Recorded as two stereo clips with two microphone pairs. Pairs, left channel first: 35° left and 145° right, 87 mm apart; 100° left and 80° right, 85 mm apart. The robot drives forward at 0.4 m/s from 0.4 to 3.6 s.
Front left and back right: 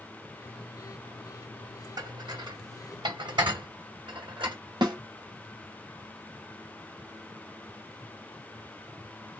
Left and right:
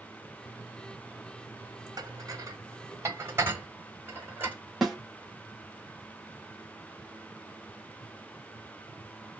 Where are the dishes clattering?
115° right, 0.9 m; by 4.6 s 145° right, 1.3 m.